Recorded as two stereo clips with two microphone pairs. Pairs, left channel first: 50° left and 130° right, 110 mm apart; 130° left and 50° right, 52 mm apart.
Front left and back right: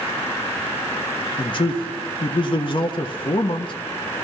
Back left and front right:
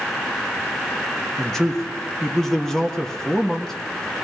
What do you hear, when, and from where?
1.4 s a man speaking: 55° left, 1.3 m